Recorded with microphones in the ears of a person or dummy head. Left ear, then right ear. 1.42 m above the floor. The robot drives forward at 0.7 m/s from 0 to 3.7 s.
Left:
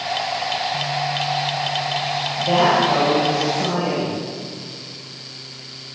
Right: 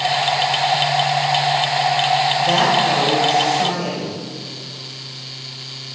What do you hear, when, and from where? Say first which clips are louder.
2.4 s a woman speaking: right 1 dB; 65° right (ahead or behind), 5.5 m; by 4.2 s 55° right (ahead or behind), 6 m